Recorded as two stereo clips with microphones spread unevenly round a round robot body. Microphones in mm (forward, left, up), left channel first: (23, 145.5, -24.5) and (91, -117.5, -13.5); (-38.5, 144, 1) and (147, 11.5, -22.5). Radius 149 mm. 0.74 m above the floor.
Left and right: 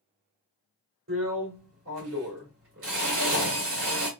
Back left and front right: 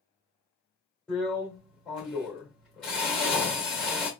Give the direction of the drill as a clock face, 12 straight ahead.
4 o'clock.